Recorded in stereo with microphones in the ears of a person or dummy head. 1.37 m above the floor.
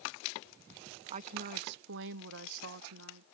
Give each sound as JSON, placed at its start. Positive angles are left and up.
{"t": 1.1, "sound": "a woman speaking", "side_deg": -40}